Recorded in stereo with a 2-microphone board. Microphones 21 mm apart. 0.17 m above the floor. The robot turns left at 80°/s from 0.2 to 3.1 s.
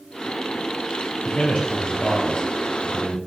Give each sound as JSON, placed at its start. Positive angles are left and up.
{"t": 1.2, "sound": "a man speaking", "azimuth_deg": 135, "distance_m": 3.5}